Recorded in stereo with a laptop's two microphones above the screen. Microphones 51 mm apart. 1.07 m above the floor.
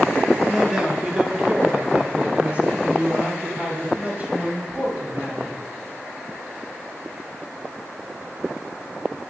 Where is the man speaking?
15° right (ahead or behind), 1.6 m; by 5.6 s 30° right (ahead or behind), 7 m.